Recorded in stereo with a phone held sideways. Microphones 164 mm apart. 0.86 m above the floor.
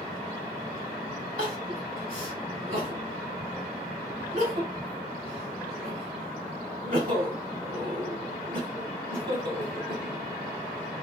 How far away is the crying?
About 2.0 m.